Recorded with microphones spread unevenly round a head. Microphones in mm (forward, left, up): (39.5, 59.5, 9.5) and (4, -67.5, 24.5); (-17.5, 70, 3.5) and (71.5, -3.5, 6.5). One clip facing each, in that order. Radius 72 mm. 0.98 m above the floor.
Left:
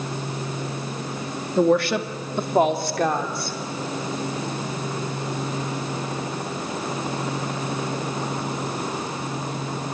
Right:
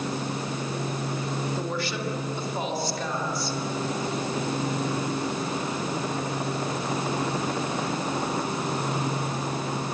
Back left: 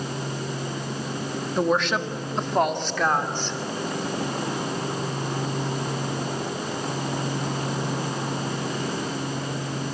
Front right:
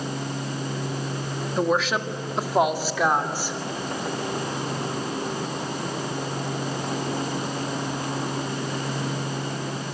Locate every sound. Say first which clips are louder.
1.6 s a woman speaking: left 11 dB, even; 50° left, 1.7 m; by 3.6 s 40° left, 3.5 m